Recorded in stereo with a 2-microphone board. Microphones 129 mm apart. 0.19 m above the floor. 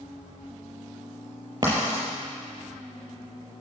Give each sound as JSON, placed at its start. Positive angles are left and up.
{"t": 1.6, "sound": "writing", "side_deg": -30, "distance_m": 5.5}